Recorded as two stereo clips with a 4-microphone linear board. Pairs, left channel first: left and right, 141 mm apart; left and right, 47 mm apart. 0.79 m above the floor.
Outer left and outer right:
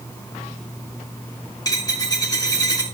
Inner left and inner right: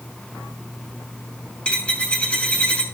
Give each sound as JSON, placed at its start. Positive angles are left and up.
{"t": 1.6, "sound": "a dropped coin", "side_deg": 25, "distance_m": 3.5}